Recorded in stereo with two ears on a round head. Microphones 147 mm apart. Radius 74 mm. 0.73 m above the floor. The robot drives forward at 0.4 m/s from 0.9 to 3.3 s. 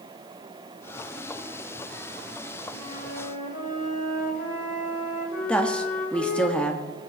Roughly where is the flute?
Left.